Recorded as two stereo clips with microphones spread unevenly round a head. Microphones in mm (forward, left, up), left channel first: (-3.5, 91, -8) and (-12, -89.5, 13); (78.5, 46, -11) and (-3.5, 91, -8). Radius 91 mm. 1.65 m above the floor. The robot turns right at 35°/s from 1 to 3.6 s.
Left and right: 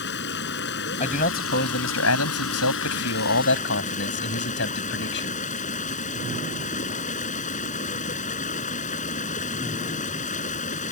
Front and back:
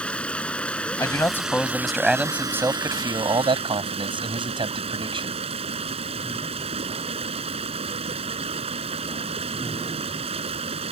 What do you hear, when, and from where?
0.0 s running water: 50° left; by 10.9 s 140° left
1.0 s a man speaking: 30° left; by 5.3 s 120° left